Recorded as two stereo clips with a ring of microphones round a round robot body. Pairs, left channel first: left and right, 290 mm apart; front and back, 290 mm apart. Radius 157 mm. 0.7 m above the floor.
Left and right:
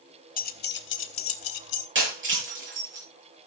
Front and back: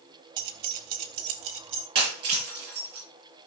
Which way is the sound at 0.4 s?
150° left.